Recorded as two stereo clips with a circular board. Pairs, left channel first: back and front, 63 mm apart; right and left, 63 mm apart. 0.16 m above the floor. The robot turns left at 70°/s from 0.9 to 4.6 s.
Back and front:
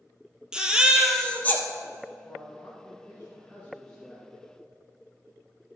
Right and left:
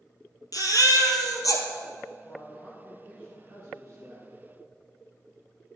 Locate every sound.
0.5 s a baby crying: 75° right, 1.3 m; by 1.6 s 130° right, 1.3 m
2.2 s a man speaking: 140° right, 2 m; by 4.3 s 75° left, 2 m